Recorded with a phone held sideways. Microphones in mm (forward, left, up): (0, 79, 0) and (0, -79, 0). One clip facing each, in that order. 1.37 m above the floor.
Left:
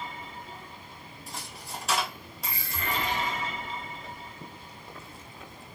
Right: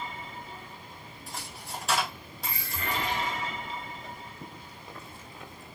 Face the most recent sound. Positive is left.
turn(degrees=0)  # may be behind; listen again after turning